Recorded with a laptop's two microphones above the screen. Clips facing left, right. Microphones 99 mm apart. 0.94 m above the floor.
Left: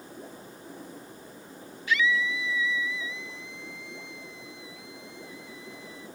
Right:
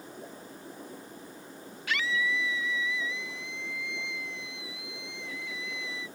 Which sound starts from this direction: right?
A scream, at 1.9 s.